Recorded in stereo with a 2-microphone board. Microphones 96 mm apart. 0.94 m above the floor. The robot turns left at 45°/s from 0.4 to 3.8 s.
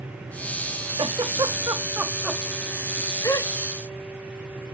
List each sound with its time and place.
1.0 s a giggle: 60° right (ahead or behind), 1.4 m; by 3.5 s 45° left (ahead or behind), 1.4 m